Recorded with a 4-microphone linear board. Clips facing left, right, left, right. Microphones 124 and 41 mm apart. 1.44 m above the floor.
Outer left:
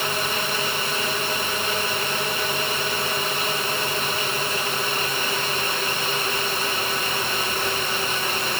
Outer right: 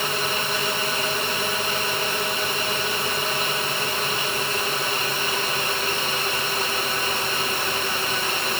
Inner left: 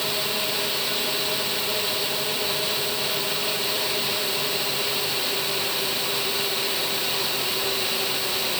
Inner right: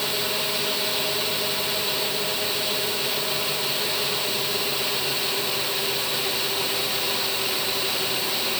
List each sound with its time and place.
Only background noise.